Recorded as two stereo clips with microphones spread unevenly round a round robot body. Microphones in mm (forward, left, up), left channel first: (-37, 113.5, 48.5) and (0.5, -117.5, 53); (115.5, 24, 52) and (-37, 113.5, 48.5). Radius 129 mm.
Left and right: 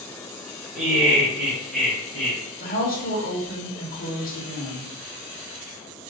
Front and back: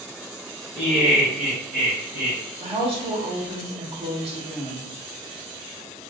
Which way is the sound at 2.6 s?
120° left.